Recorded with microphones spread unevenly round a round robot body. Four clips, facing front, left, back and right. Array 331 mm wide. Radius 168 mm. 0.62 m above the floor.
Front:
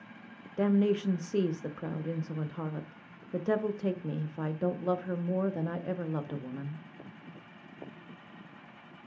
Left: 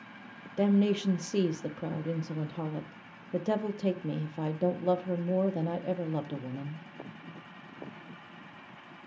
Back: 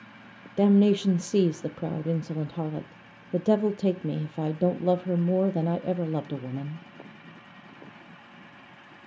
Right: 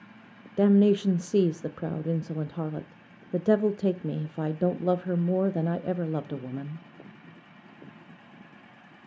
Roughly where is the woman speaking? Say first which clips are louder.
Right 5 dB, back 6 dB; behind.